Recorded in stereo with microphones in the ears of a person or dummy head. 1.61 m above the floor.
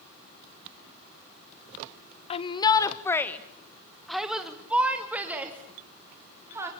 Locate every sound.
2.3 s a shout: 35° left (ahead or behind), 1.1 m; by 6.7 s 15° right (ahead or behind), 4 m